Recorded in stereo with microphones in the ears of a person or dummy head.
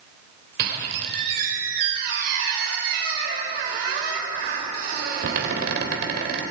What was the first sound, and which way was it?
A squeak, 55° right (ahead or behind).